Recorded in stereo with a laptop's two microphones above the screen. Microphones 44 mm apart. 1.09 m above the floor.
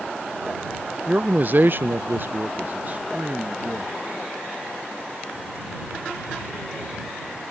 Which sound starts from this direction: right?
A man speaking, at 1.1 s.